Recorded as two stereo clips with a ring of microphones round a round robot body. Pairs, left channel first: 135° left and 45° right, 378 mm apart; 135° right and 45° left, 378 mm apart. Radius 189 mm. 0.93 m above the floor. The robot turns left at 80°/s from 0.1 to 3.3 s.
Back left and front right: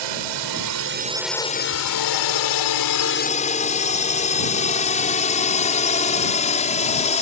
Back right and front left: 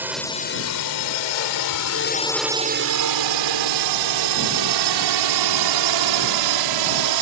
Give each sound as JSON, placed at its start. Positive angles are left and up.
{"t": 0.0, "sound": "a drone", "azimuth_deg": -40}